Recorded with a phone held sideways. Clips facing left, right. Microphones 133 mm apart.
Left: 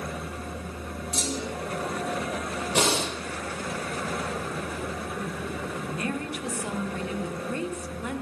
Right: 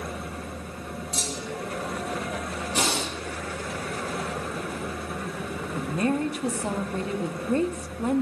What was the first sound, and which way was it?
A clunk, 50° left (ahead or behind).